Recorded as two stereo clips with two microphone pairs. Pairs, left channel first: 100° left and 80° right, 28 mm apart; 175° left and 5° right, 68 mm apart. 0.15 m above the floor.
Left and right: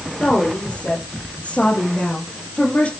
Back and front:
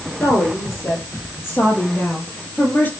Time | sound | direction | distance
0.2 | a woman speaking | 135° left | 5.5 m